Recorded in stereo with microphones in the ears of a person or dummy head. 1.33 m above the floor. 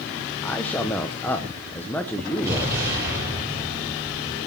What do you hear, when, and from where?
0.4 s a man speaking: 10° left (ahead or behind), 0.9 m
2.4 s an explosion: 15° right (ahead or behind), 8.5 m